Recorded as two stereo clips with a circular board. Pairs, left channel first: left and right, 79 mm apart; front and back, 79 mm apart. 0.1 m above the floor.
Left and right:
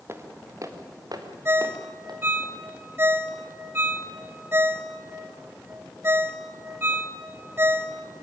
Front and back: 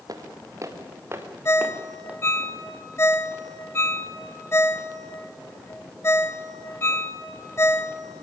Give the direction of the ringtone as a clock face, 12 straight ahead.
1 o'clock.